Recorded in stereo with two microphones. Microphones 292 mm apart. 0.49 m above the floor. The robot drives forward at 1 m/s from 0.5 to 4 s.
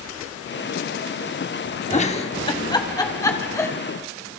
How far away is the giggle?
About 0.9 m.